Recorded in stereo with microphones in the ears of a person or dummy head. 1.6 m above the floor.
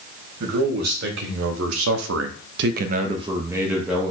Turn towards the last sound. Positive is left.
turn(degrees=-5)  # may be behind; listen again after turning